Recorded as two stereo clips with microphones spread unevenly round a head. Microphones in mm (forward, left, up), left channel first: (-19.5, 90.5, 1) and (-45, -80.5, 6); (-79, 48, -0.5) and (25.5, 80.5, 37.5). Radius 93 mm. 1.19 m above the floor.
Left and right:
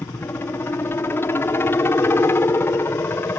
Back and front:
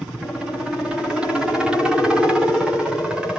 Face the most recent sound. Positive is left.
turn(degrees=135)